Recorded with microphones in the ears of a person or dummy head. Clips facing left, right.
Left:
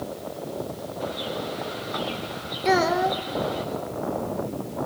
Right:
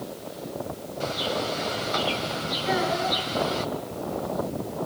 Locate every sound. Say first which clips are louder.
1.0 s a bird: right 3 dB; 50° right (ahead or behind), 4 m
2.6 s a child speaking: left 5 dB; 70° left (ahead or behind), 3 m